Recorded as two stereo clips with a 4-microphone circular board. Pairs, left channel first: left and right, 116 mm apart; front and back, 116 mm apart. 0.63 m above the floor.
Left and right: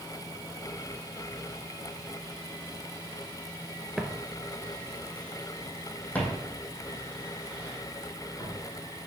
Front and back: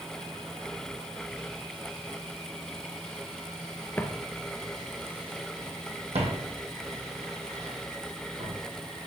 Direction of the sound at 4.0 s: 10° right.